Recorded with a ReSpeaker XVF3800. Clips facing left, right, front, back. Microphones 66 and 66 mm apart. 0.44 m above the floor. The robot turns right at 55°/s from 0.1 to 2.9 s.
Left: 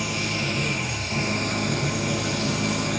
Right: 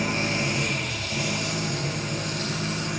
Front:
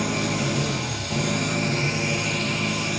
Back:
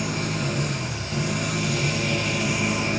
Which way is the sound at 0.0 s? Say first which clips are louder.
Right 2 dB, front 2 dB; 35° right.